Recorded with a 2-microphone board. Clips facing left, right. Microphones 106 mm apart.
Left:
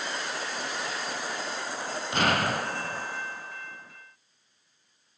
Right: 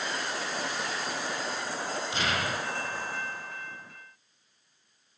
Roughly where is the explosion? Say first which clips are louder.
Left 7 dB; left.